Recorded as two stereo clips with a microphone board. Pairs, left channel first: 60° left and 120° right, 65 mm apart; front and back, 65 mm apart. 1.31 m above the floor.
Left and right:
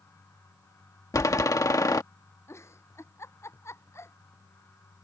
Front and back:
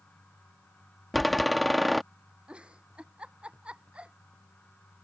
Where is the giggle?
105° left.